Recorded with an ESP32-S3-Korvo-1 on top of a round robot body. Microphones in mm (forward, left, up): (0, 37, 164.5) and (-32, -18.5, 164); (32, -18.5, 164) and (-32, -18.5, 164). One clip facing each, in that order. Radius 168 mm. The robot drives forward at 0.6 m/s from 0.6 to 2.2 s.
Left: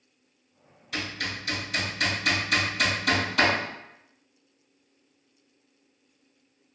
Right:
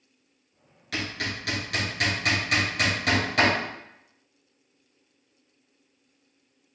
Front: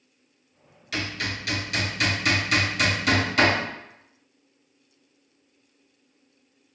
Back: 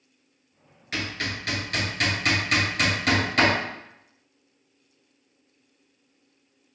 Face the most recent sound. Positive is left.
turn(degrees=-135)